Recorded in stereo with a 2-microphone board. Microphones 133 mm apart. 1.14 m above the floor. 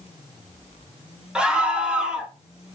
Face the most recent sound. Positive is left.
turn(degrees=-5)  # may be behind; listen again after turning